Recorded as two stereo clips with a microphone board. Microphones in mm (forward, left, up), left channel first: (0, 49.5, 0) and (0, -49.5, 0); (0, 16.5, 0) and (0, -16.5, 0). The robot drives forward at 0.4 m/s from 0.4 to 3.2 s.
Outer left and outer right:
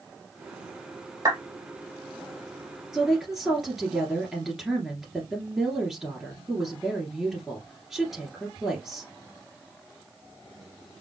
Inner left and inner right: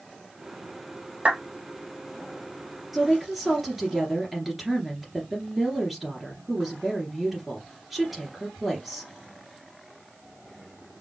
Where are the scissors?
I don't hear scissors.